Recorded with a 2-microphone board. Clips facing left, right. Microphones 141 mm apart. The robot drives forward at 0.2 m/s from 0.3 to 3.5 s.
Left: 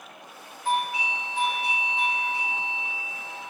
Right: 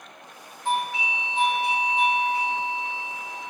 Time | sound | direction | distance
0.7 | a doorbell | 25° right (ahead or behind) | 1.5 m